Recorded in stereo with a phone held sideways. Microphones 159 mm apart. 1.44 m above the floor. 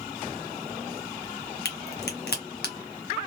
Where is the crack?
80° left, 0.8 m.